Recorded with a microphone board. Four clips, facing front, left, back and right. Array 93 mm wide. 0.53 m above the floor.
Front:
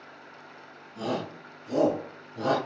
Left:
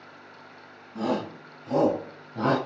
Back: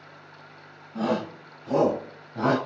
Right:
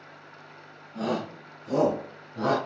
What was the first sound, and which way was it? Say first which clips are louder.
A shout: left 2 dB, back 5 dB; 170° left.